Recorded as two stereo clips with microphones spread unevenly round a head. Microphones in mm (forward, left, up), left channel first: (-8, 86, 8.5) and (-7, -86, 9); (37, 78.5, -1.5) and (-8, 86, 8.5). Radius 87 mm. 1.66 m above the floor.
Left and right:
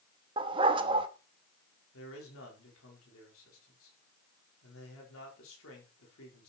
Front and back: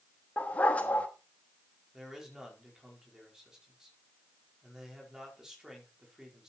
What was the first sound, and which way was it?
A dog barking, 70° right.